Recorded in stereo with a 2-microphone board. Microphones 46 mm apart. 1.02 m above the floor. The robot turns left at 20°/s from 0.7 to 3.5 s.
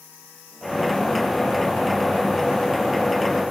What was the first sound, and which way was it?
Only background noise.